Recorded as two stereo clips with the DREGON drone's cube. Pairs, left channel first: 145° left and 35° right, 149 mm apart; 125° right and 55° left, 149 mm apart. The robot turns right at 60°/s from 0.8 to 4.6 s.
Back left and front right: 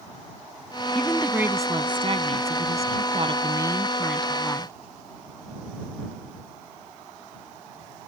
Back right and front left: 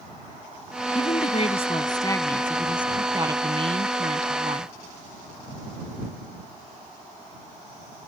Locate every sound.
0.9 s a woman speaking: 135° right; by 4.7 s 85° left